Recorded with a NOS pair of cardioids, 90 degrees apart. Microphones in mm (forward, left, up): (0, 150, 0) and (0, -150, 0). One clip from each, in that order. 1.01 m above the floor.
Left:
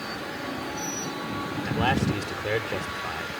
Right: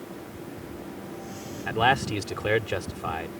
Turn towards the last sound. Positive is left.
turn(degrees=-30)